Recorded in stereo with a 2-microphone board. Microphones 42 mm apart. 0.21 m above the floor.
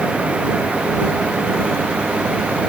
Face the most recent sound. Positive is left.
No sound to turn to.